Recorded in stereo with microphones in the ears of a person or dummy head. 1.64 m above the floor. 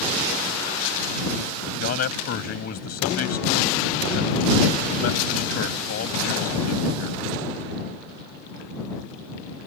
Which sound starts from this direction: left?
A man speaking, at 1.8 s.